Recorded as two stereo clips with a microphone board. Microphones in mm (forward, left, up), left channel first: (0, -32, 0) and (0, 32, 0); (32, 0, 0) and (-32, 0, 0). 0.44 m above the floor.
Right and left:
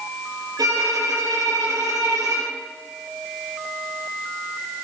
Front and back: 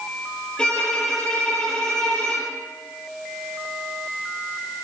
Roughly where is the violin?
Left.